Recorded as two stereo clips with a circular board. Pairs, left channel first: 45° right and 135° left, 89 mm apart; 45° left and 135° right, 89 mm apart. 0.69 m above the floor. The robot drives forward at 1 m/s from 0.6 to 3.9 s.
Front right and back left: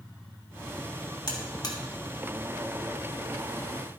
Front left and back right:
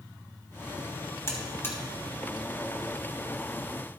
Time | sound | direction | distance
1.3 | a buzzer | 10° right | 2.5 m